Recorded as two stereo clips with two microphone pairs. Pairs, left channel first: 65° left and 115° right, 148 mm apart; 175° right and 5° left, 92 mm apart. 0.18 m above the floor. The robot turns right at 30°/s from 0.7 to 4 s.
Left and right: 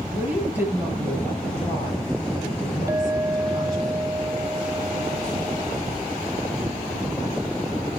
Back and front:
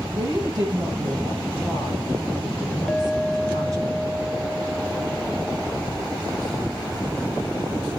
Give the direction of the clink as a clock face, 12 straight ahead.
4 o'clock.